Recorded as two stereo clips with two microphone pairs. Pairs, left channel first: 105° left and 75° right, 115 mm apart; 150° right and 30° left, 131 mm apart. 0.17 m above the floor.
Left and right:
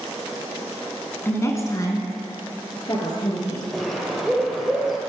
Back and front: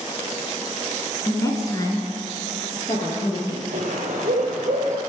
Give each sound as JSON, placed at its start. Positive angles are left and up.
{"t": 1.2, "sound": "a woman speaking", "azimuth_deg": 160, "distance_m": 1.2}
{"t": 3.7, "sound": "a bird", "azimuth_deg": 15, "distance_m": 1.8}